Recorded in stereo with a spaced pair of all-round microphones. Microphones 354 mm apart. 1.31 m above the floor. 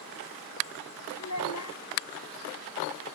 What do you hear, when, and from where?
1.2 s a child speaking: 50° left (ahead or behind)